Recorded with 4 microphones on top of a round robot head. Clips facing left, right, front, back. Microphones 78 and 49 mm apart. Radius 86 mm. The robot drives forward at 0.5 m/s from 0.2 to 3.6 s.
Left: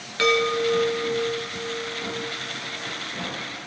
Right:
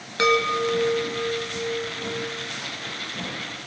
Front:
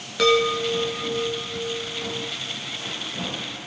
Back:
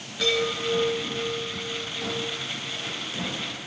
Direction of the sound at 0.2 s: 20° right.